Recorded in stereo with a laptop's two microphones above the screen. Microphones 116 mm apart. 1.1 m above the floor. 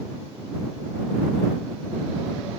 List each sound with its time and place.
Only background noise.